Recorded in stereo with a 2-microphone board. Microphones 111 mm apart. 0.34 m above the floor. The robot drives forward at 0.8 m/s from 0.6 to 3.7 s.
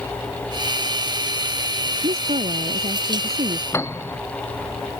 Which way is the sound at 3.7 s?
25° left (ahead or behind).